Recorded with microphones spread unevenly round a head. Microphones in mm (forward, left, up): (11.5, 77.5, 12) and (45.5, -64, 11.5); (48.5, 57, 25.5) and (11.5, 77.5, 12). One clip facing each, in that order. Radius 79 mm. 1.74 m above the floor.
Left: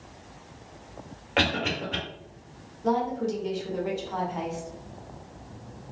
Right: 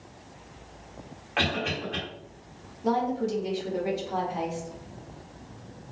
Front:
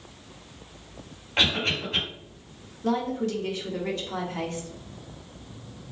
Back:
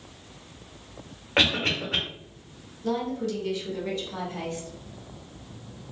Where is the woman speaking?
5° left, 0.8 m.